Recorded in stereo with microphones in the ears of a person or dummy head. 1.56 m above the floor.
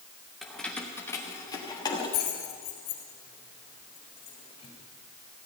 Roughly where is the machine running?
No machine running in this recording.